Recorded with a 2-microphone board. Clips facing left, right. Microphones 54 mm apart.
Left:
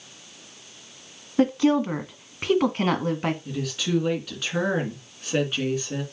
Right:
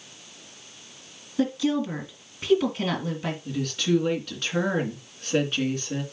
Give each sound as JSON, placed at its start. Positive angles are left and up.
{"t": 1.4, "sound": "a woman speaking", "side_deg": 45, "distance_m": 1.6}
{"t": 3.5, "sound": "a woman speaking", "side_deg": 0, "distance_m": 2.5}